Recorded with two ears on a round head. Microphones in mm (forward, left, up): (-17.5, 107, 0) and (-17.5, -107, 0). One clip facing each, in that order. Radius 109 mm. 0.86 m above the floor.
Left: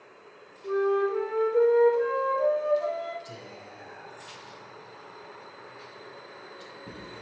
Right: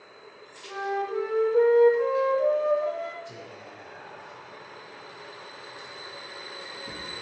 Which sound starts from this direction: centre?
A flute, at 0.6 s.